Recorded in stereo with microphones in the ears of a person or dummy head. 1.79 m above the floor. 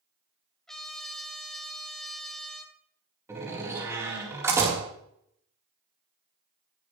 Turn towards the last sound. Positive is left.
turn(degrees=-10)  # may be behind; listen again after turning